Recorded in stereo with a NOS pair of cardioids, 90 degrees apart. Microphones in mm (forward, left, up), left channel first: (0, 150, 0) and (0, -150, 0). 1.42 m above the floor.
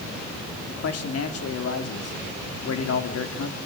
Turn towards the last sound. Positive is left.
turn(degrees=50)